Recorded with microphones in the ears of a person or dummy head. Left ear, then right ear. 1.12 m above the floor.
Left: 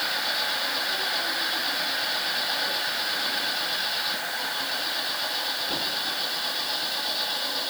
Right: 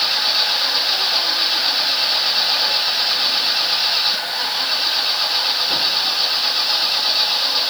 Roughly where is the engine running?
Right.